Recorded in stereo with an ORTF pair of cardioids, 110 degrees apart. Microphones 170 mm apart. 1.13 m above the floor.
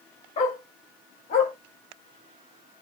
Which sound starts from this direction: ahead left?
A dog barking, at 0.4 s.